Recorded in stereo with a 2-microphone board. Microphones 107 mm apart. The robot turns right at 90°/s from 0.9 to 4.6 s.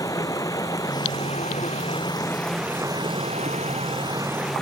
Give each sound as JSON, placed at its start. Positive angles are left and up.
{"t": 0.0, "sound": "running water", "azimuth_deg": 30}